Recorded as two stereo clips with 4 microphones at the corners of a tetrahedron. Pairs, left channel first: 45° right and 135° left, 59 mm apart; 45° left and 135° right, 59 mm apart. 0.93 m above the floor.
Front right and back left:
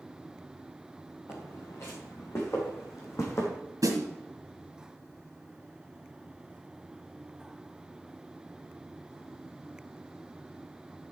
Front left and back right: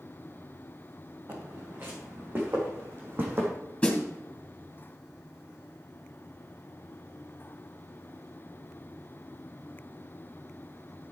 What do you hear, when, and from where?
1.3 s footsteps: 85° right, 5.5 m
3.8 s a snare drum: 120° left, 2.5 m